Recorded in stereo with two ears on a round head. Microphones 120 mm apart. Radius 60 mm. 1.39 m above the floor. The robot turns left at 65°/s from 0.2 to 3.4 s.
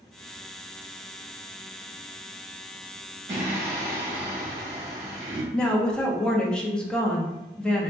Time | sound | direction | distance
3.3 | singing | 25° right (ahead or behind) | 1.4 m
5.5 | a woman speaking | 5° left (ahead or behind) | 0.5 m